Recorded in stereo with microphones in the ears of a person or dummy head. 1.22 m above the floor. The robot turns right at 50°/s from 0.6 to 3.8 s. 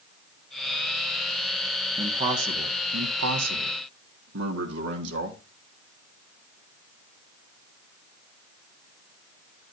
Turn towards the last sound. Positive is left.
turn(degrees=-70)